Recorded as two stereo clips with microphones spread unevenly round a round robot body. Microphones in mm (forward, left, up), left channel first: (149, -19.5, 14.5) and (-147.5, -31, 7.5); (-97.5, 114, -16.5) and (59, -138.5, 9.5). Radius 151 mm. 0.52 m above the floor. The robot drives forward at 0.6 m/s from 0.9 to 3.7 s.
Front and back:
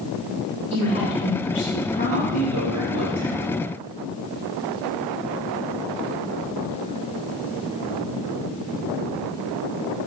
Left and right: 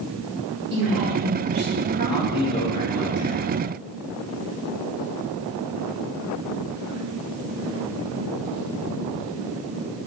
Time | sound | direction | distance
0.7 | a woman speaking | 15° right | 1.4 m
2.1 | a man speaking | 175° right | 1.1 m